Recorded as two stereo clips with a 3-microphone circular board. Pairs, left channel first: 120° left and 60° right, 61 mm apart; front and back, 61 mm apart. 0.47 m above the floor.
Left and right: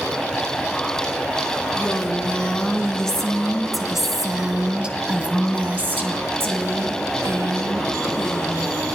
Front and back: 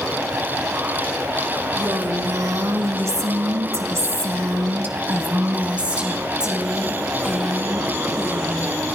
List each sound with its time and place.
1.8 s a woman speaking: 175° right, 4 m; by 8.8 s 80° right, 4 m